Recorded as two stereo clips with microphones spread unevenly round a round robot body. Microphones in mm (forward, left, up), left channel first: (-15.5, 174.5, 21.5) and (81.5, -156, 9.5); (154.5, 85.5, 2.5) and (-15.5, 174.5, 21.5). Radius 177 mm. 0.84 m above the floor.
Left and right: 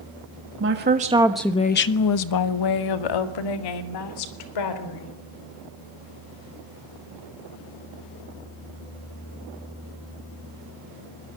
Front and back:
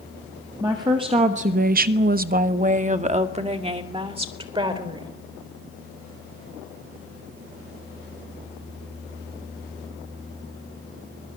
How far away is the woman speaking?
About 1.6 m.